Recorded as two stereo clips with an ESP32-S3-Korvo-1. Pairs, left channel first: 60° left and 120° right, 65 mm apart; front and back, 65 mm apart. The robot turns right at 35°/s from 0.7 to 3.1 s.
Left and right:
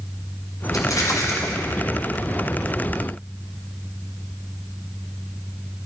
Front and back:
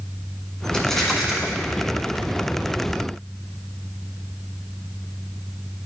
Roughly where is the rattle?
Left.